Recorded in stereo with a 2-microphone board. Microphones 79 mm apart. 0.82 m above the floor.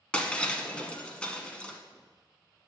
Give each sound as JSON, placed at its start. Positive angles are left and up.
{"t": 0.1, "sound": "breaking glass", "side_deg": 15, "distance_m": 1.0}